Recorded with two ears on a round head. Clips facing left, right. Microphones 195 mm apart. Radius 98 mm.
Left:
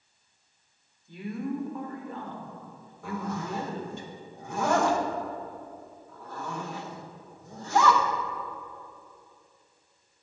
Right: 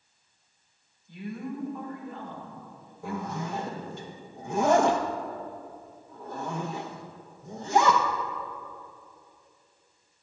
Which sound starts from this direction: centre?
A zipper, at 3.0 s.